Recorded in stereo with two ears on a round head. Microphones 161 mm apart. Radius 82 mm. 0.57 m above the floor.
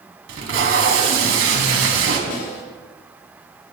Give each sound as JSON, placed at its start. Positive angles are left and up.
{"t": 0.3, "sound": "tape being pulled", "side_deg": -70, "distance_m": 3.0}
{"t": 2.3, "sound": "a snare drum", "side_deg": 80, "distance_m": 8.0}